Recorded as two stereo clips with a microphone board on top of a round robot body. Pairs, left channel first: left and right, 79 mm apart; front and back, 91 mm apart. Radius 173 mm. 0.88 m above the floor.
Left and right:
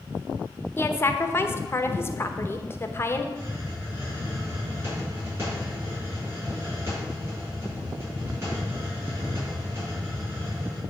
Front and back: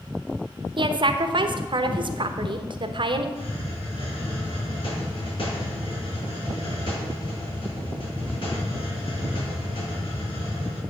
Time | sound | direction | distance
0.8 | a woman speaking | 150° left | 1.0 m
3.4 | a hiss | 35° right | 5 m